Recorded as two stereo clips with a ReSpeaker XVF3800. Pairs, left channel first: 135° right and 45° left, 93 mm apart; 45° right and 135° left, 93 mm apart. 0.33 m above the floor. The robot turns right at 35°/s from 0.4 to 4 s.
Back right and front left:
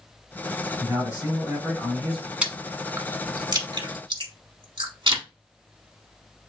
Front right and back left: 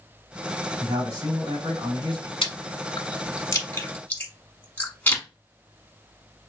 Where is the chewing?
35° right, 1.1 m; by 5.2 s 25° left, 1.1 m.